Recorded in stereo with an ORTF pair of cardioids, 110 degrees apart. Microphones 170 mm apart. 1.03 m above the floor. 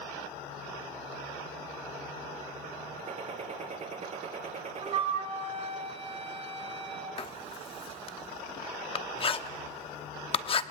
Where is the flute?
35° right, 3.5 m.